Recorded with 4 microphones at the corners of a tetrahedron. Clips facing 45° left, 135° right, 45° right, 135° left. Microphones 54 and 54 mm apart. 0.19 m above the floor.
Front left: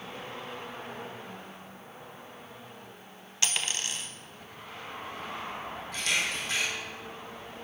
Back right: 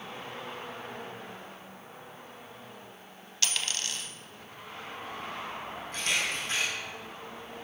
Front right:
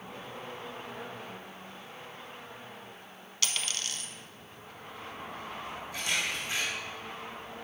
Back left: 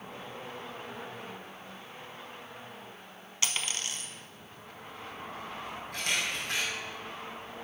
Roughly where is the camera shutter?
Behind.